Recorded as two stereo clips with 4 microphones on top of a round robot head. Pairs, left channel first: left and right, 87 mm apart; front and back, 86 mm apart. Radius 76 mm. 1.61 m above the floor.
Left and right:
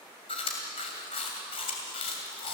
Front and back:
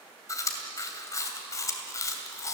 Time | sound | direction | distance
0.3 | chewing | 45° left | 2.5 m